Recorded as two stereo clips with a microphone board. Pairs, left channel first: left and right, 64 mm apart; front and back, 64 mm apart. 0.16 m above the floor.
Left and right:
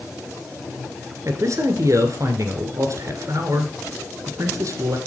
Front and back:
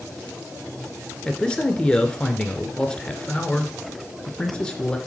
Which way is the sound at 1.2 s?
70° right.